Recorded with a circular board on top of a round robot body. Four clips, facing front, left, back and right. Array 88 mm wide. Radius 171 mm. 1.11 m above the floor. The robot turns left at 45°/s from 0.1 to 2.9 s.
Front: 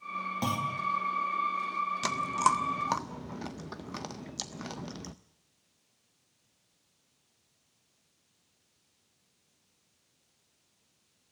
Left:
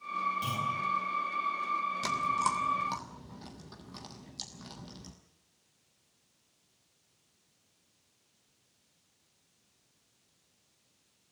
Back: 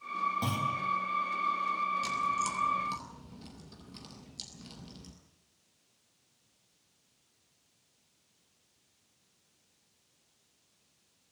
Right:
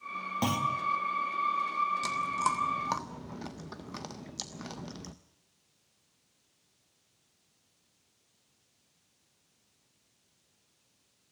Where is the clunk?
70° right, 2.5 m; by 0.8 s 85° right, 2.5 m.